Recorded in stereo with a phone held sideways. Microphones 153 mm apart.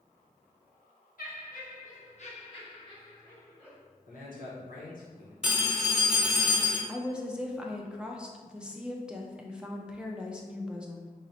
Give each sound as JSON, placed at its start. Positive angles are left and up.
{"t": 1.2, "sound": "laughter", "side_deg": 75, "distance_m": 1.3}
{"t": 4.1, "sound": "a man speaking", "side_deg": 70, "distance_m": 1.0}
{"t": 5.4, "sound": "a phone ringing", "side_deg": -5, "distance_m": 0.8}
{"t": 6.9, "sound": "a woman speaking", "side_deg": -5, "distance_m": 0.5}